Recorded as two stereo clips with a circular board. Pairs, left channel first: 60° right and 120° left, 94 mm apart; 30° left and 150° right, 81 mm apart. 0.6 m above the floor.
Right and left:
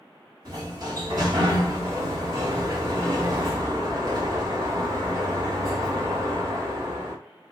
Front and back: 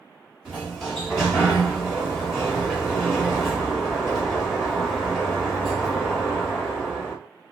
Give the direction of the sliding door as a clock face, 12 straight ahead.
8 o'clock.